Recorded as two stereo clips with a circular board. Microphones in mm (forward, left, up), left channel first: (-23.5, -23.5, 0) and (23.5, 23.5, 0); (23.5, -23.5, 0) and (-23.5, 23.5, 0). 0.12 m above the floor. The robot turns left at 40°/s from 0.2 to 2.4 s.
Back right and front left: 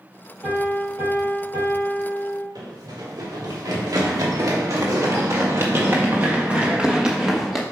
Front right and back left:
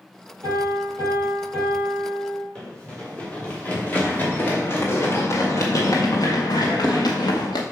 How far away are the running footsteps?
About 3 m.